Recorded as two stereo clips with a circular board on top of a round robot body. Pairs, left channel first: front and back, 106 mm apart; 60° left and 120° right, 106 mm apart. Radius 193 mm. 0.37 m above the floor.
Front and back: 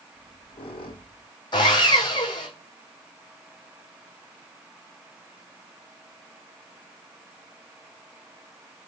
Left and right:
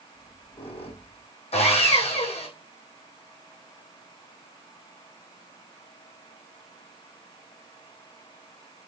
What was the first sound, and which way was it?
A squeak, 35° left.